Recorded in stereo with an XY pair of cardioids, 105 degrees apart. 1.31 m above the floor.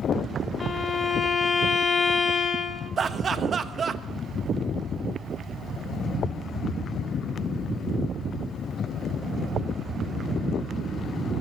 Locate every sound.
0.6 s a violin: 35° left, 1.2 m
3.0 s laughter: 45° right, 1.2 m